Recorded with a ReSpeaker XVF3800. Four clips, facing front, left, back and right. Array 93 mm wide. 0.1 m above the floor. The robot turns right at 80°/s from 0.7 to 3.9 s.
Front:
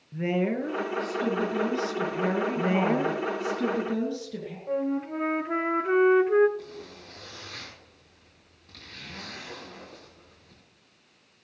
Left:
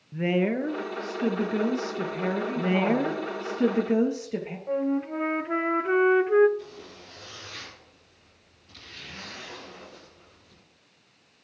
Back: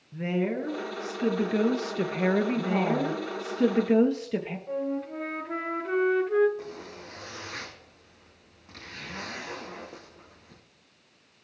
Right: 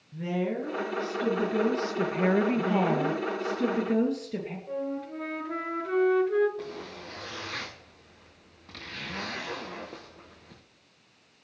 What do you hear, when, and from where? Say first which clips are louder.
0.1 s a woman speaking: left 5 dB, front 2 dB; 85° left, 2 m; by 3.2 s 75° right, 2 m
2.6 s a woman speaking: left 1 dB, front 2 dB; 55° left, 2.5 m; by 4.6 s 160° left, 2.5 m
4.7 s a flute: left 8 dB, front 4 dB; 60° left, 1.0 m
6.6 s a zipper: right 4 dB, back 2 dB; 110° right, 3.5 m